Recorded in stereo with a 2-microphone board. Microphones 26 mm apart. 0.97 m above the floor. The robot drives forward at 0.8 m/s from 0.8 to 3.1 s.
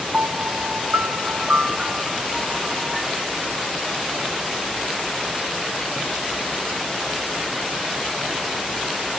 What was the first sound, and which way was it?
A piano, 60° right (ahead or behind).